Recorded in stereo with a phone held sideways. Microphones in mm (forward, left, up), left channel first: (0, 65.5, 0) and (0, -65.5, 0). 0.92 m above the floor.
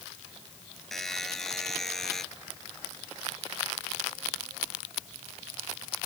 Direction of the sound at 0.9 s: 5° left (ahead or behind).